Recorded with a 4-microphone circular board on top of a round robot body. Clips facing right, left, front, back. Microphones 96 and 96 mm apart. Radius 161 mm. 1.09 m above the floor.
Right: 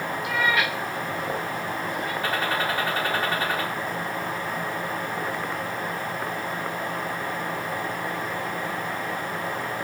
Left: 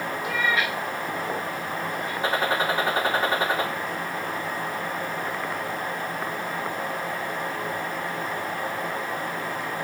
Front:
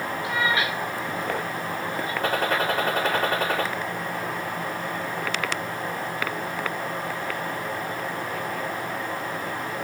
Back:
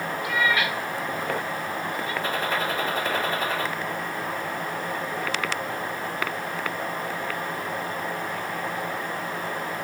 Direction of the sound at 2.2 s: 25° left.